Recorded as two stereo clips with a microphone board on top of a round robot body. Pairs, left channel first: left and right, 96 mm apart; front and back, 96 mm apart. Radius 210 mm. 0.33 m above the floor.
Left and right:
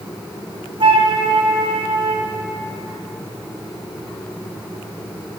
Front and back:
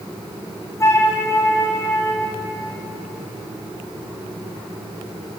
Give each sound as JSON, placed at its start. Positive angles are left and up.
{"t": 0.8, "sound": "a flute", "azimuth_deg": -60, "distance_m": 3.5}